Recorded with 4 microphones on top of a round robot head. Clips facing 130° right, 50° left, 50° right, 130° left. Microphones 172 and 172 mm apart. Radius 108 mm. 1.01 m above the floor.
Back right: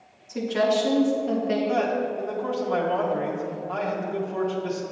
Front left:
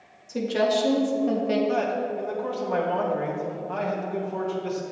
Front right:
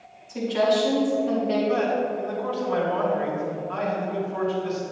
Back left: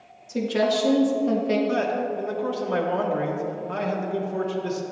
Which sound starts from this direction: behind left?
A man speaking, at 1.7 s.